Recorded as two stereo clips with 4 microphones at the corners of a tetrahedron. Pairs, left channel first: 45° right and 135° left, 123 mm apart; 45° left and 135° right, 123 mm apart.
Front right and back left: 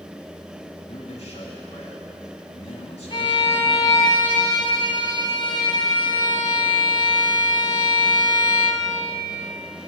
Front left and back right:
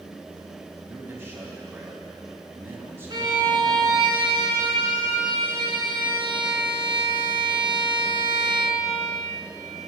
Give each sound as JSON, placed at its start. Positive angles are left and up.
{"t": 0.9, "sound": "a man speaking", "azimuth_deg": -65, "distance_m": 3.0}
{"t": 3.1, "sound": "a violin", "azimuth_deg": -85, "distance_m": 1.2}